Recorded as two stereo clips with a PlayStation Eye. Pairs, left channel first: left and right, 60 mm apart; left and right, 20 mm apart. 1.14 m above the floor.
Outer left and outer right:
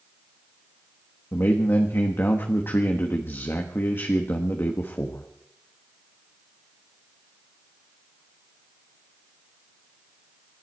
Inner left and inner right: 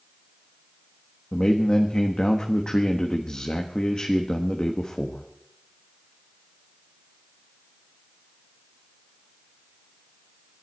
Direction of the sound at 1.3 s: 40° left (ahead or behind).